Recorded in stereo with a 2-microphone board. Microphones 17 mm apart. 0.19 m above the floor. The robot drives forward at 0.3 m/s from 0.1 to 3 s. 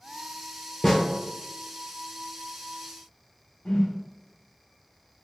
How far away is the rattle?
I don't hear a rattle.